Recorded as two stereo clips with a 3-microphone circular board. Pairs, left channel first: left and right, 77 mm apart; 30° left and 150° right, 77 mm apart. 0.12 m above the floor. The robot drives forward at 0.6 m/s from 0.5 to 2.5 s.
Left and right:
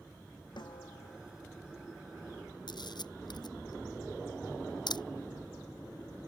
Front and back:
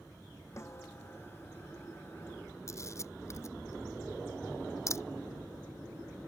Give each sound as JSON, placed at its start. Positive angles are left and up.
{"t": 0.6, "sound": "a snare drum", "azimuth_deg": 80}
{"t": 2.7, "sound": "a camera shutter", "azimuth_deg": 80}